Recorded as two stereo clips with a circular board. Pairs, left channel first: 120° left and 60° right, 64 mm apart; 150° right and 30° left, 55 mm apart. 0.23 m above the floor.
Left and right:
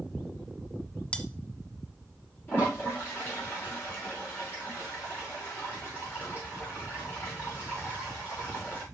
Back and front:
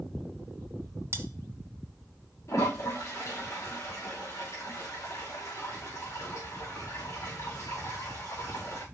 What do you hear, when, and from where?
1.1 s cutlery clinking: 55° left, 1.4 m
2.5 s a toilet flushing: 175° left, 5 m